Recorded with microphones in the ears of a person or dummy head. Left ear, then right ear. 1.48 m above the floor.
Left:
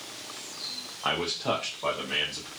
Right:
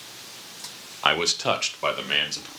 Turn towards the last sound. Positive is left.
turn(degrees=-60)  # may be behind; listen again after turning